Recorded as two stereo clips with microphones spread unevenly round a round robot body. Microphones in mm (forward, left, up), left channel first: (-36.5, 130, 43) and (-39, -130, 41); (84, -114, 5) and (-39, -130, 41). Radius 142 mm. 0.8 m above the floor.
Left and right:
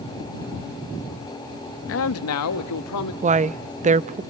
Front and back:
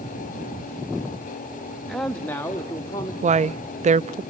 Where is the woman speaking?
145° right, 0.7 m.